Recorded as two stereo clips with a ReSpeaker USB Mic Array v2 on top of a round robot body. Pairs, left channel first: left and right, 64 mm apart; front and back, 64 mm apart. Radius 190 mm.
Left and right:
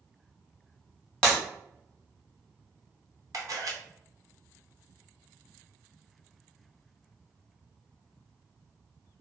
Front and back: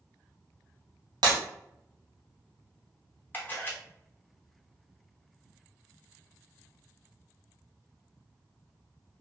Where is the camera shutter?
60° right, 0.9 m.